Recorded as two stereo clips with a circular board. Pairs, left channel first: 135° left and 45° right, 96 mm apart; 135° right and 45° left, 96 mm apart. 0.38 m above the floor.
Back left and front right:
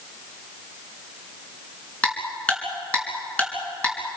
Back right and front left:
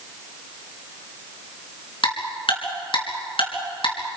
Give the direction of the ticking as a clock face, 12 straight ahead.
5 o'clock.